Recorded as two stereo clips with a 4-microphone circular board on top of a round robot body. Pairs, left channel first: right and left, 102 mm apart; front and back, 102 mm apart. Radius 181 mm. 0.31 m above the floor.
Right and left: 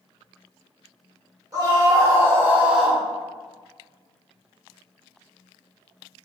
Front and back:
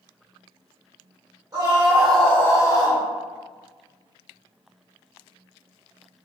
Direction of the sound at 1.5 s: 130° left.